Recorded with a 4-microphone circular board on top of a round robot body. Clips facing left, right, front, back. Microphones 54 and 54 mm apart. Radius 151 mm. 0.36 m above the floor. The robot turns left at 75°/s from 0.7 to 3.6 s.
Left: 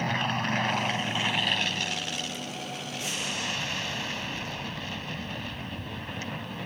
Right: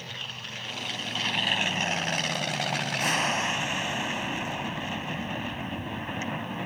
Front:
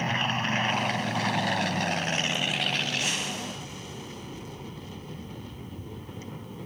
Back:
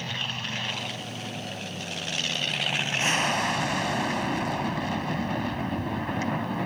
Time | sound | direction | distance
0.0 | an aircraft | 55° left | ?